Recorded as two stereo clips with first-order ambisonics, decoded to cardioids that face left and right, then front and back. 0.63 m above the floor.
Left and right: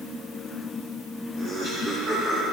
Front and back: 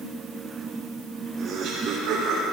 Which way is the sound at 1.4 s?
125° right.